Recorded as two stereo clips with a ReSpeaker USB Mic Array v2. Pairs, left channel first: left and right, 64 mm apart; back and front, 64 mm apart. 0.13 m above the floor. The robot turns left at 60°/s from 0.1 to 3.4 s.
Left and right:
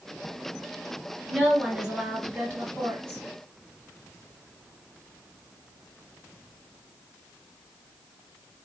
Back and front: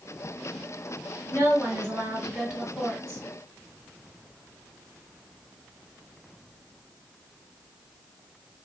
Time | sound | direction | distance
1.3 | a woman speaking | 10° left | 1.5 m